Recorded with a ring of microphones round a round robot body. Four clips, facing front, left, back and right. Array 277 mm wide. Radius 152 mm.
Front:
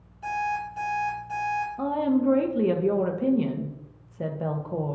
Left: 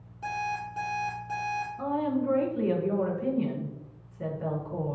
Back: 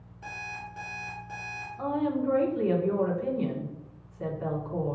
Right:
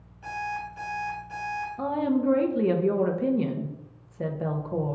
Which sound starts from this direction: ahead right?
A woman speaking, at 1.8 s.